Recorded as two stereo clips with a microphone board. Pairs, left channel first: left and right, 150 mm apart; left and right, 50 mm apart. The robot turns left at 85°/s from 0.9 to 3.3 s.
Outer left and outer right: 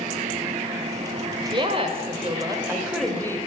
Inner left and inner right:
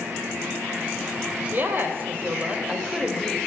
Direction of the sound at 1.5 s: 50° right.